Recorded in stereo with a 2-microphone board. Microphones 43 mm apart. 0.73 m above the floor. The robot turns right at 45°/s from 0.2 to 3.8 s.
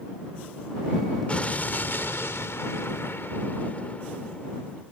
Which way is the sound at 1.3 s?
30° left.